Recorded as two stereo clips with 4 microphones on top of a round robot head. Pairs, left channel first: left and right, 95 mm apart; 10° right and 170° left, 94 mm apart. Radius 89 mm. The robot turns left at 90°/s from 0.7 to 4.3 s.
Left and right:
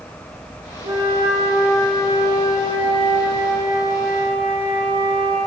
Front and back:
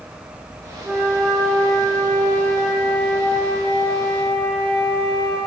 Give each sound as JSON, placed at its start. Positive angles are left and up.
{"t": 0.8, "sound": "a flute", "azimuth_deg": -100, "distance_m": 9.0}